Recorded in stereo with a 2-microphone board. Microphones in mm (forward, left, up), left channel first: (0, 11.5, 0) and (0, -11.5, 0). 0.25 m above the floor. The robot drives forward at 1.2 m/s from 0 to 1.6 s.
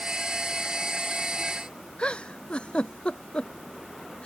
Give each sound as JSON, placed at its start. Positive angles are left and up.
{"t": 2.0, "sound": "a giggle", "side_deg": 50}